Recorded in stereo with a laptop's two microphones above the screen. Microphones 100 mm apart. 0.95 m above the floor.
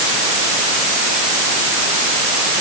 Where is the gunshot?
No gunshot in this recording.